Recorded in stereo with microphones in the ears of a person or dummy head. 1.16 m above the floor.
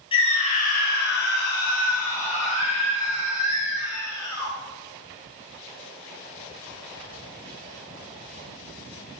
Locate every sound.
0.1 s a scream: 30° left (ahead or behind), 0.8 m; by 4.5 s 25° left (ahead or behind), 1.9 m